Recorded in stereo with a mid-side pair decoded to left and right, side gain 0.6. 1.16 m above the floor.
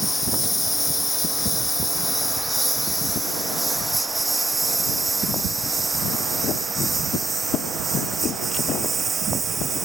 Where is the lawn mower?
15° left; by 9.9 s 30° right.